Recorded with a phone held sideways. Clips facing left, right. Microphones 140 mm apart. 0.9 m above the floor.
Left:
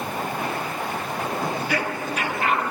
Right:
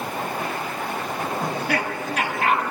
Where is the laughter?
65° right (ahead or behind), 7 m.